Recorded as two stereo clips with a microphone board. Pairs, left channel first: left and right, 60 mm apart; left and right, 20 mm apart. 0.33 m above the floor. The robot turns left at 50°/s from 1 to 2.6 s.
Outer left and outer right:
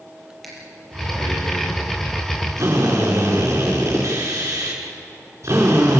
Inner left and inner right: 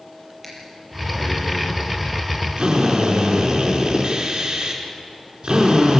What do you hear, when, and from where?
0.4 s breathing: centre (ahead or behind), 6 m; by 1.7 s 35° left (ahead or behind), 6 m
2.6 s a drill: 55° right (ahead or behind), 4.5 m